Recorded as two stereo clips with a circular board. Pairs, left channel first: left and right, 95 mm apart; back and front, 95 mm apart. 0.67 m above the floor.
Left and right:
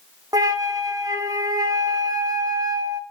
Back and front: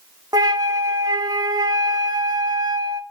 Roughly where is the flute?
Ahead right.